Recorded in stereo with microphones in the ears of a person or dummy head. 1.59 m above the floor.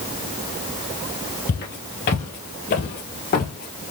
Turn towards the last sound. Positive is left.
turn(degrees=40)  # may be behind; listen again after turning